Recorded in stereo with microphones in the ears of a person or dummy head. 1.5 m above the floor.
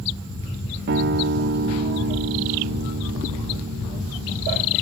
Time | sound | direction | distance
0.9 | a guitar | 60° right (ahead or behind) | 0.5 m